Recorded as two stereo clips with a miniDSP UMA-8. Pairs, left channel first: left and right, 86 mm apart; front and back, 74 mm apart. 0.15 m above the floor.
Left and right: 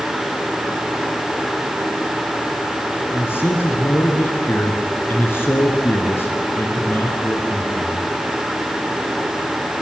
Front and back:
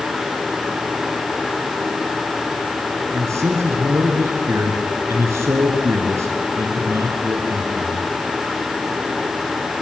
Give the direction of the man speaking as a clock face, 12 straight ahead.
7 o'clock.